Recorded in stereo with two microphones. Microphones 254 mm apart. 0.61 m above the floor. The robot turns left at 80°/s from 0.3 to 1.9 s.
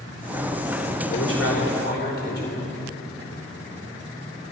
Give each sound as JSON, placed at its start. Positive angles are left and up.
{"t": 1.1, "sound": "a man speaking", "azimuth_deg": 110, "distance_m": 2.5}